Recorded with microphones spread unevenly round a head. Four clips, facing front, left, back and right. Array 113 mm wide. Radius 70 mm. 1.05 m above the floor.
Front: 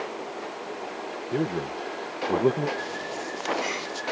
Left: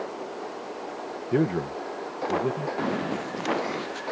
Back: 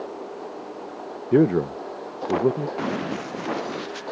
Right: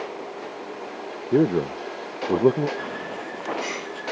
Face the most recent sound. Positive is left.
turn(degrees=135)